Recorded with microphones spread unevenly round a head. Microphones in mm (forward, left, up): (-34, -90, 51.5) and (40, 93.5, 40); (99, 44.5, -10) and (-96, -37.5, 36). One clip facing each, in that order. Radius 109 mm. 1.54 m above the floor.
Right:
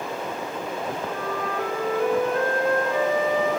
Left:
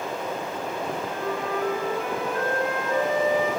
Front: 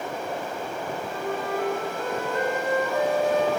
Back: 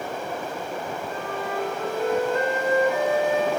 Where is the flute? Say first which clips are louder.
Even, front 1 dB; 70° right, 9 m.